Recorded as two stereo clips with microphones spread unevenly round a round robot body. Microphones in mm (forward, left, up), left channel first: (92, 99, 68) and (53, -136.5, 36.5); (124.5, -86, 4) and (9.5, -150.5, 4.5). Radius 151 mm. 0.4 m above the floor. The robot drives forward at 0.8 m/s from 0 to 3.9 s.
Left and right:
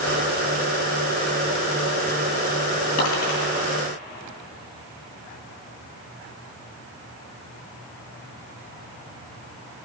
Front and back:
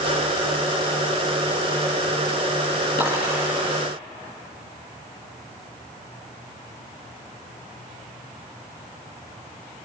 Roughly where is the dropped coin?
Left.